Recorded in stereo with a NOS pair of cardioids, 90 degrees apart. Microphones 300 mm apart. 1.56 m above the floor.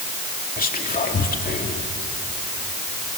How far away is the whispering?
About 3 m.